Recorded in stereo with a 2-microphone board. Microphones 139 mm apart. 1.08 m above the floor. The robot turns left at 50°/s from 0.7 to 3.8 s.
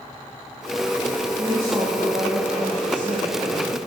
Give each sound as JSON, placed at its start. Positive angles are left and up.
{"t": 1.4, "sound": "a woman speaking", "azimuth_deg": -20, "distance_m": 2.0}